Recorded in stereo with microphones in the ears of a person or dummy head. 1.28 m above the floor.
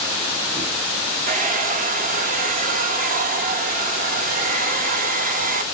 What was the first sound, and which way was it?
A hair dryer, 45° right (ahead or behind).